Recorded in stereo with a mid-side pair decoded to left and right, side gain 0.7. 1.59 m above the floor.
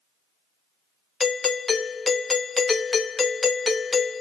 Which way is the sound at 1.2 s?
25° left.